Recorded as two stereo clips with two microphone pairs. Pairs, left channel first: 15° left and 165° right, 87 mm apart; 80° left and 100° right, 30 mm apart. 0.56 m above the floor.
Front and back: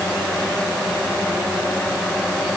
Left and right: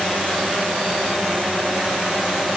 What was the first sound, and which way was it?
Only background noise.